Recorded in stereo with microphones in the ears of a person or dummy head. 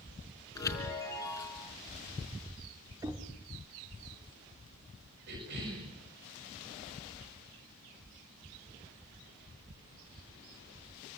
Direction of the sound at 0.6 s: 20° left (ahead or behind).